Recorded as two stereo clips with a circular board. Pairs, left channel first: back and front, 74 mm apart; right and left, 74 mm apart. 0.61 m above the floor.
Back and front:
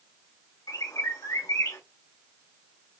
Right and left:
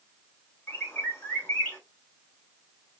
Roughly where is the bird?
Behind right.